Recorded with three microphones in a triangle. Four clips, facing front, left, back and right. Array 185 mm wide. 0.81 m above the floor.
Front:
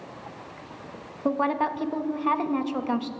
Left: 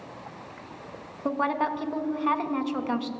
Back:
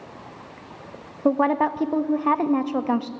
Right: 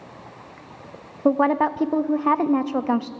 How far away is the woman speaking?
About 0.6 m.